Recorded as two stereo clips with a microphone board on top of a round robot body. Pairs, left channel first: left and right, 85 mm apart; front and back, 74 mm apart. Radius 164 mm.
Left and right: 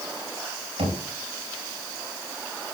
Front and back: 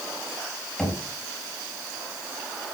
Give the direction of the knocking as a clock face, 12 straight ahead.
3 o'clock.